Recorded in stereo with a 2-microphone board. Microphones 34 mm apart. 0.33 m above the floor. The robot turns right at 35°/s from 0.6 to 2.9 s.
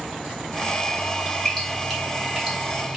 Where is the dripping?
10° left (ahead or behind), 1.3 m; by 3.0 s 20° right (ahead or behind), 1.3 m.